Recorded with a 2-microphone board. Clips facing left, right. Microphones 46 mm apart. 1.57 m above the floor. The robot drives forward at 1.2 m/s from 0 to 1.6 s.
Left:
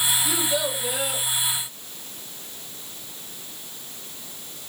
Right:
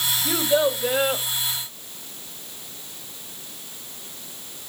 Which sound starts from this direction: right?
A child speaking, at 0.2 s.